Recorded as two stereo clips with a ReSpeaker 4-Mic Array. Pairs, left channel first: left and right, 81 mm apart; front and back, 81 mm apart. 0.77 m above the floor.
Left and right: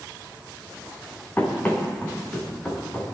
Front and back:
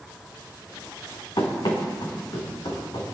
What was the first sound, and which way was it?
Running footsteps, 20° left.